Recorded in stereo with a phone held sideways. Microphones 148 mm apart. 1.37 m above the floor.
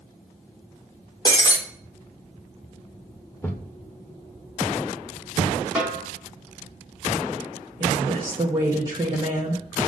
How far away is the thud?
About 1.0 m.